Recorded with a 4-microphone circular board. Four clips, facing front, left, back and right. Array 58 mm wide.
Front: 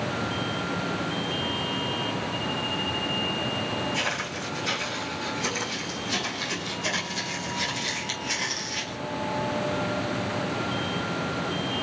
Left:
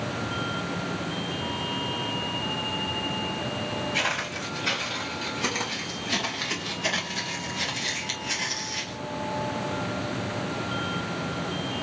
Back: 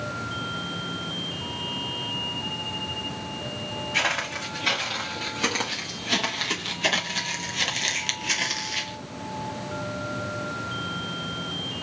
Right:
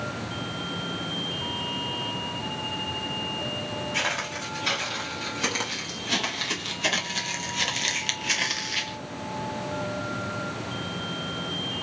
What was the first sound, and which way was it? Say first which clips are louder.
Footsteps: right 1 dB, back 3 dB; 170° right.